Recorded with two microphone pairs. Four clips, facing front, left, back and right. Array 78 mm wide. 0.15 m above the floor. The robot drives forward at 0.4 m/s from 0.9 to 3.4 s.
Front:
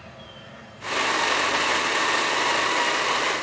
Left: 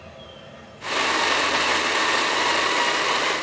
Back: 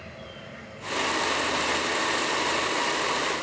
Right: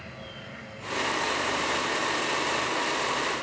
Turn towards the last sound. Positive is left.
turn(degrees=-135)